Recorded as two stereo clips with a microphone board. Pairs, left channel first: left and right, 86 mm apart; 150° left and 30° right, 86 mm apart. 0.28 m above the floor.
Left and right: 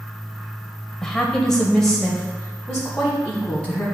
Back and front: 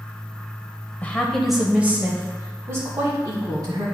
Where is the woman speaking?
160° left, 1.0 m; by 3.9 s 5° left, 2.5 m.